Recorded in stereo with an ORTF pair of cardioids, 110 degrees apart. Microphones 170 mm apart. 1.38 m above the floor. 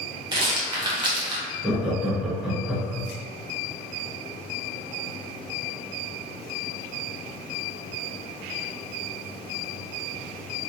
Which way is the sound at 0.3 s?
30° right.